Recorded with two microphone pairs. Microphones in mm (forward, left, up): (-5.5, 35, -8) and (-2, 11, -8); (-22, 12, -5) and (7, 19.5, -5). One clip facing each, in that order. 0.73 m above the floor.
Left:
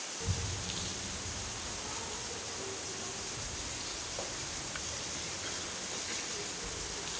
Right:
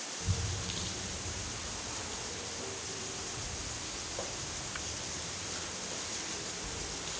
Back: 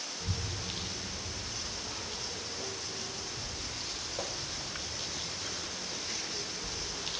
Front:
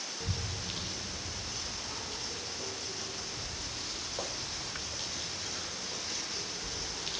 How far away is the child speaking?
About 3 m.